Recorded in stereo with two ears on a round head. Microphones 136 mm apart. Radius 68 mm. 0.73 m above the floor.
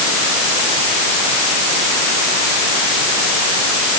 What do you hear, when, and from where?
Only background noise.